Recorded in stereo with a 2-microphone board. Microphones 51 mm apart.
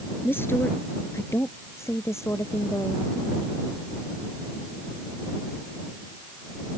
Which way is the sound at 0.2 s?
50° left (ahead or behind).